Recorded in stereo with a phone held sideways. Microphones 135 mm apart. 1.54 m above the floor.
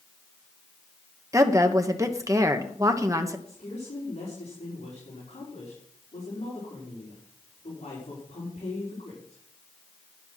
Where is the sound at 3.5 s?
50° left (ahead or behind), 5 m.